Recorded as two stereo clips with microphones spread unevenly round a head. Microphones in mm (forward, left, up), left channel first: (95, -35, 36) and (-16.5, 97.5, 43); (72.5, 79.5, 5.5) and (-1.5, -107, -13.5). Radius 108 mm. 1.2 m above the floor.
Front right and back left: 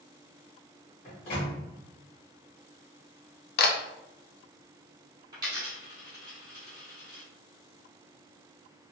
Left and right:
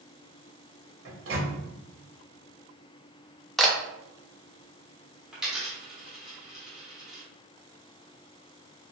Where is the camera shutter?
20° right, 0.5 m.